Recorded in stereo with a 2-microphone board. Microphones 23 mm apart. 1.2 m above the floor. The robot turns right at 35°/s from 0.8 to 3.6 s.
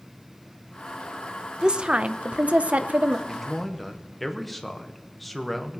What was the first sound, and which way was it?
A woman speaking, 140° right.